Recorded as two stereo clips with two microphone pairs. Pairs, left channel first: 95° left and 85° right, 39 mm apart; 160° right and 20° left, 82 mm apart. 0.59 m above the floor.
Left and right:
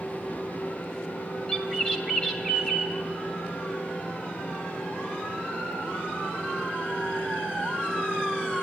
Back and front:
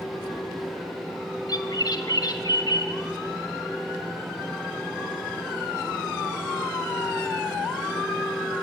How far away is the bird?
About 2.0 m.